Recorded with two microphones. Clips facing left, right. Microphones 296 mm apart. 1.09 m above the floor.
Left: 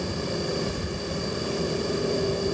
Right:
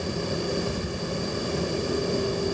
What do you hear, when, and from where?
Only background noise.